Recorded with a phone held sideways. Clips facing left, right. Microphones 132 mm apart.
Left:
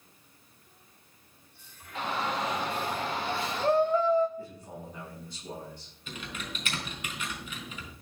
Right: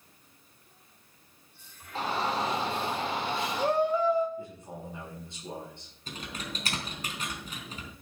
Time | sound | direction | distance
1.9 | a shout | 35° right (ahead or behind) | 3 m
4.4 | a man speaking | 25° right (ahead or behind) | 8 m
6.1 | typing on a keyboard | 40° right (ahead or behind) | 4 m